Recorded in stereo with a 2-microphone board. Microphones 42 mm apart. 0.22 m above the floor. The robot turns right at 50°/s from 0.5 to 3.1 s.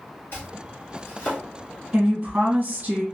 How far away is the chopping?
About 1.8 m.